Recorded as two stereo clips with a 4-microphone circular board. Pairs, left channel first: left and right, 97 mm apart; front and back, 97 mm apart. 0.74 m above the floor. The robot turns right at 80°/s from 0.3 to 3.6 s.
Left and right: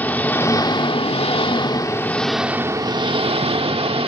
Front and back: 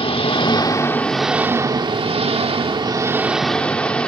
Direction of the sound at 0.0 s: 20° left.